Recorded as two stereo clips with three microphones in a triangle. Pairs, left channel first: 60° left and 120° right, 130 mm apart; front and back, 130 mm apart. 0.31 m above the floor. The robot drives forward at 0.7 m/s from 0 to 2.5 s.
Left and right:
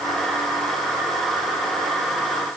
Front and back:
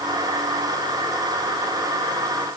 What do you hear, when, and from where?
Only background noise.